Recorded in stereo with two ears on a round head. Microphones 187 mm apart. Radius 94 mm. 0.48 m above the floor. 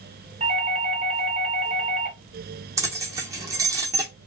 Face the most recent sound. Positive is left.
turn(degrees=-15)  # may be behind; listen again after turning